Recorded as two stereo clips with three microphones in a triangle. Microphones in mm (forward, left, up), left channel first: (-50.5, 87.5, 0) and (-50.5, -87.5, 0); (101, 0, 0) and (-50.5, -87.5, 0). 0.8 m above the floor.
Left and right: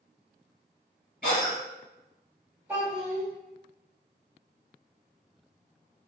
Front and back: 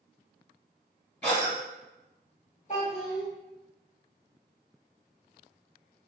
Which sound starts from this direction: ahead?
A child speaking, at 2.7 s.